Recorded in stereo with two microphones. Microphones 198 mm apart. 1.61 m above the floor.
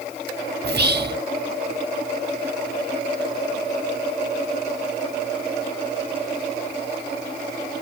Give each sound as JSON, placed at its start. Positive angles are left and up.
{"t": 0.6, "sound": "whispering", "side_deg": -60, "distance_m": 0.9}